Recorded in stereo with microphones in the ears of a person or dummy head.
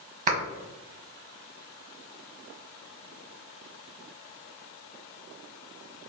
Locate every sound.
0.3 s a clap: 35° right (ahead or behind), 1.1 m